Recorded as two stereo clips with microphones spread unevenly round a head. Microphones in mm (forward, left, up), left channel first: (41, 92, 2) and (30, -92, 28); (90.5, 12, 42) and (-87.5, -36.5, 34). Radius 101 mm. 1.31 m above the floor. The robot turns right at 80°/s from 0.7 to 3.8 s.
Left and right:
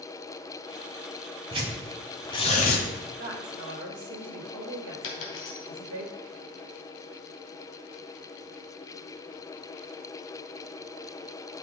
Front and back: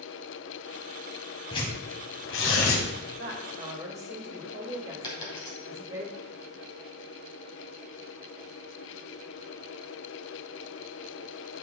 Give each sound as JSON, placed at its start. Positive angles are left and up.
{"t": 1.5, "sound": "tearing paper", "azimuth_deg": -45, "distance_m": 1.8}
{"t": 3.2, "sound": "a woman speaking", "azimuth_deg": -140, "distance_m": 2.0}
{"t": 5.0, "sound": "a dropped coin", "azimuth_deg": 85, "distance_m": 2.5}